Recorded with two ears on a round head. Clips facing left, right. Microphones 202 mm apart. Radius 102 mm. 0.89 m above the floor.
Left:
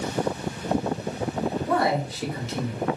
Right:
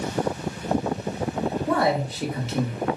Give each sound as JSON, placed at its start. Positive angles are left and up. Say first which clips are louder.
{"t": 1.7, "sound": "a man speaking", "louder": "right 2 dB", "side_deg": -55, "distance_m": 1.4}